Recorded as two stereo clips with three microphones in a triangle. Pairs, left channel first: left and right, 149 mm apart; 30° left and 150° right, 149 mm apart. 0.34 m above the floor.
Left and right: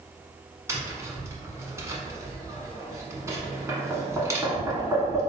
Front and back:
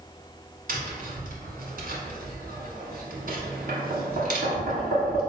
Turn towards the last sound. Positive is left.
turn(degrees=-160)